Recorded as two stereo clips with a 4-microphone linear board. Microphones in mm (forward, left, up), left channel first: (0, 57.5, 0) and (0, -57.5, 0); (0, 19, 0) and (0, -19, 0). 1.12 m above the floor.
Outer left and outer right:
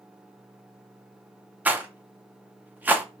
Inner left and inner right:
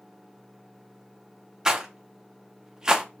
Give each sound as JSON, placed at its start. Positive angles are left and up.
{"t": 1.6, "sound": "a rattle", "side_deg": -15, "distance_m": 0.6}